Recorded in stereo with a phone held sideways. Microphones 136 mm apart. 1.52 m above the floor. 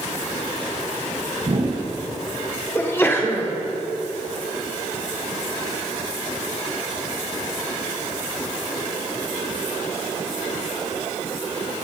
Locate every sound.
1.4 s a whoosh: 35° right (ahead or behind), 1.4 m
2.8 s a sneeze: 20° left (ahead or behind), 1.5 m